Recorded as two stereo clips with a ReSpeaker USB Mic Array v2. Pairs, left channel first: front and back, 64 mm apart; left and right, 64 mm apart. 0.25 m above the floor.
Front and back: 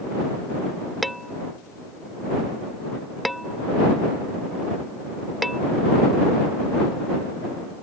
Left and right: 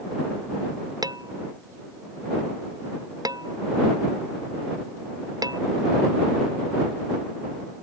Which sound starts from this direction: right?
Dishes clattering, at 1.0 s.